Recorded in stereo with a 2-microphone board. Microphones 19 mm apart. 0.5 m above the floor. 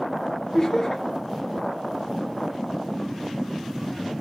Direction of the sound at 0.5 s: 25° left (ahead or behind).